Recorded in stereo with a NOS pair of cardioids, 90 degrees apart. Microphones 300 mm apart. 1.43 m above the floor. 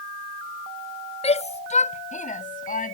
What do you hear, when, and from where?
1.2 s a shout: 20° left; by 2.9 s 25° left